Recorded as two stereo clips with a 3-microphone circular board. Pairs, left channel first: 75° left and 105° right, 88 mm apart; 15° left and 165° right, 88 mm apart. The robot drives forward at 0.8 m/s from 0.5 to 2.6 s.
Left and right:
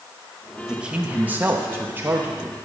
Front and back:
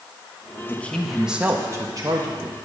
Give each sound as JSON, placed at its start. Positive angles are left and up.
{"t": 0.7, "sound": "a man speaking", "azimuth_deg": -30, "distance_m": 0.9}